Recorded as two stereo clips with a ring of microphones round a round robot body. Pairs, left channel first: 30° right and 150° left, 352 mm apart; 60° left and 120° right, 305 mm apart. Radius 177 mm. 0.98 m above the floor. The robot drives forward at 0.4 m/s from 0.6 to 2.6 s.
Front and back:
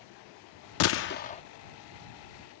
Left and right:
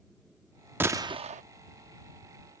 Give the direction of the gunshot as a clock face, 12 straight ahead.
1 o'clock.